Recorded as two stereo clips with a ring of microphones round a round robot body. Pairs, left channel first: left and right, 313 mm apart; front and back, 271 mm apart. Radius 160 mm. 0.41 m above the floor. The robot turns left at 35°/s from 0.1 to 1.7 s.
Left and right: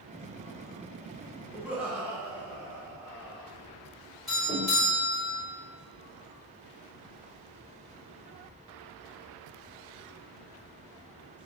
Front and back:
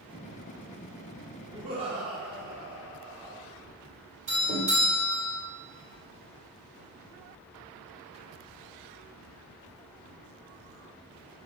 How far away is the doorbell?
About 1.7 m.